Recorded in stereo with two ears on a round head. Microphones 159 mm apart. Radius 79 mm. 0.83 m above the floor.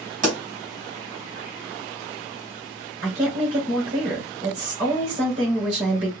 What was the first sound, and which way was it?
A pop, 45° right (ahead or behind).